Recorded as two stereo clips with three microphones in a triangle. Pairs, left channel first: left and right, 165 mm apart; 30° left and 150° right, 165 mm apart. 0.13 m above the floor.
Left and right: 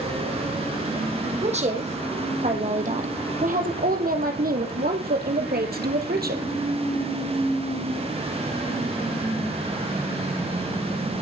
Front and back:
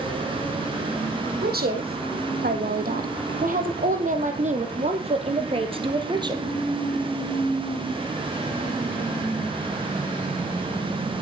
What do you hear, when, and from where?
1.4 s a woman speaking: 135° right, 4.5 m; by 6.5 s 85° right, 3 m